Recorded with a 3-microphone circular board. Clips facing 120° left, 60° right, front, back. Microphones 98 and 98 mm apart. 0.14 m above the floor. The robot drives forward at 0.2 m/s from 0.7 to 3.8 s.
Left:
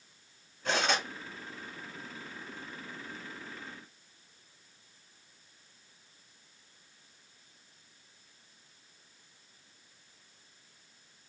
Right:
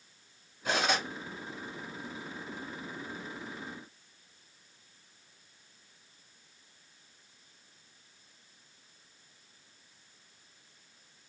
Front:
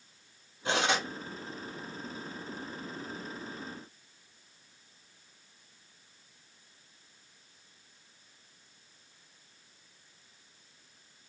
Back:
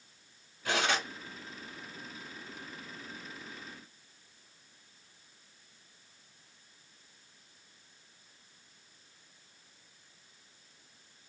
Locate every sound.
0.7 s cutlery clinking: 15° left, 0.9 m; by 1.1 s 20° left, 0.8 m